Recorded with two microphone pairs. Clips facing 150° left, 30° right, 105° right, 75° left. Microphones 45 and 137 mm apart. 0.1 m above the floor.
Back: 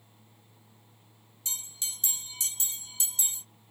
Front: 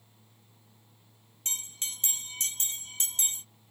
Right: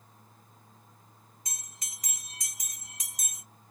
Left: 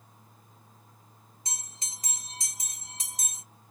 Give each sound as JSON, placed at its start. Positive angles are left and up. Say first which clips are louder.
{"t": 1.4, "sound": "a bell", "louder": "front 2 dB, left 6 dB", "azimuth_deg": 10, "distance_m": 0.7}